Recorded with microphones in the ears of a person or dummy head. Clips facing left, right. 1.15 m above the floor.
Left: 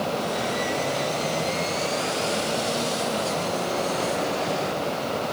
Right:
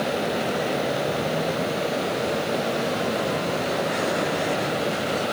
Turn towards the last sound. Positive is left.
No sound to turn to.